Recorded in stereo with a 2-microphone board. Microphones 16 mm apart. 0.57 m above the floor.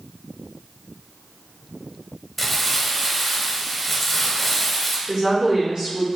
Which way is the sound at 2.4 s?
Centre (ahead or behind).